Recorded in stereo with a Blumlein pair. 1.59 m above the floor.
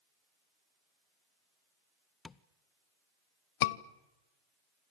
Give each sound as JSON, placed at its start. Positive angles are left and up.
{"t": 2.2, "sound": "tapping", "azimuth_deg": 20, "distance_m": 0.6}
{"t": 3.6, "sound": "a scream", "azimuth_deg": 50, "distance_m": 1.0}